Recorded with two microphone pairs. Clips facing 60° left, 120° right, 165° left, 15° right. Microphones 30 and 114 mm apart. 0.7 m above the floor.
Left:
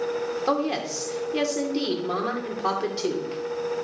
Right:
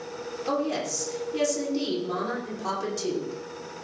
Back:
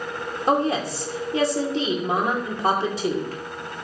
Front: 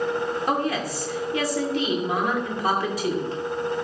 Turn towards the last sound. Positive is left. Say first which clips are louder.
# left 1 dB, back 8 dB
turn(degrees=110)